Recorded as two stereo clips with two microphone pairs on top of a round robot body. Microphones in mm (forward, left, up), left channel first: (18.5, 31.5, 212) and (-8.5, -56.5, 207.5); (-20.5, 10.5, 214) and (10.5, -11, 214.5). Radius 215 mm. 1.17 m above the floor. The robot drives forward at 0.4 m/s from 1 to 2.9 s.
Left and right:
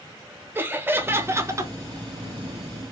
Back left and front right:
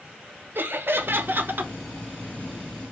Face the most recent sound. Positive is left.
turn(degrees=-110)